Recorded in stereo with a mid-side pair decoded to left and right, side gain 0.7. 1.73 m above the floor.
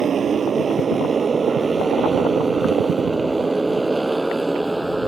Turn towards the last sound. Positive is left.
turn(degrees=-5)